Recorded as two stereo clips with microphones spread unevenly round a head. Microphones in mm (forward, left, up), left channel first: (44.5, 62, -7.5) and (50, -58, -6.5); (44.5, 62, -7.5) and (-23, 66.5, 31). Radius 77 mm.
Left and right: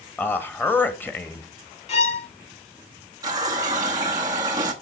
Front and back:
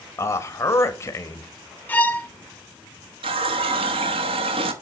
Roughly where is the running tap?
Behind.